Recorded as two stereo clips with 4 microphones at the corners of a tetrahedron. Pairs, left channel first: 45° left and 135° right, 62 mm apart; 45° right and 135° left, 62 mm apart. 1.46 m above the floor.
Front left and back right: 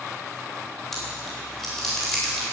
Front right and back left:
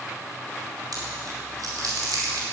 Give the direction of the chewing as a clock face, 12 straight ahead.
8 o'clock.